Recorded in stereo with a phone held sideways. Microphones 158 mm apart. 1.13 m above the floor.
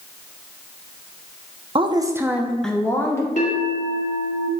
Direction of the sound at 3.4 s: 55° left (ahead or behind).